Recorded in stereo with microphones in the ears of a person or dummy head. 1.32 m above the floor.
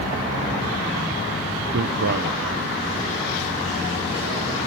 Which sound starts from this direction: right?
A man speaking, at 1.7 s.